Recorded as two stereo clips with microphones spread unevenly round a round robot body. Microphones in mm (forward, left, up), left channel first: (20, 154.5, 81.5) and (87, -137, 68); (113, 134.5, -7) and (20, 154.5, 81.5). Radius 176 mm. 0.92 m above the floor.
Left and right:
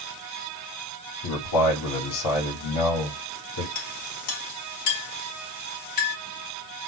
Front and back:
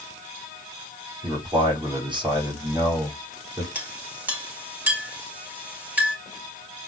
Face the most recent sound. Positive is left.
turn(degrees=95)